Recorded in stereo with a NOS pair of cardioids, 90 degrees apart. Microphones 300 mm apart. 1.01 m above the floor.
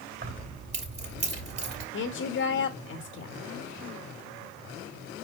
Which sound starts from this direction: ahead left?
A woman speaking, at 1.9 s.